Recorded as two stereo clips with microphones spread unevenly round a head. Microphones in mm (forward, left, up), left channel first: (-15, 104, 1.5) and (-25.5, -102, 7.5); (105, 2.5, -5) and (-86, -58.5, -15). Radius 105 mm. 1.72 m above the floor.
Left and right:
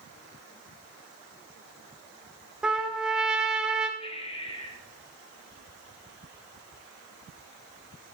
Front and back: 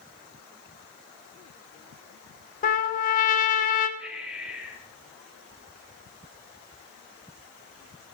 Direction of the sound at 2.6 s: 10° right.